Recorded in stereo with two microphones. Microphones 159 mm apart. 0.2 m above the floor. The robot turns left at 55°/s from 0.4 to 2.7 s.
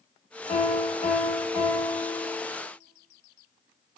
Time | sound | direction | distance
0.5 | a piano | 100° left | 0.7 m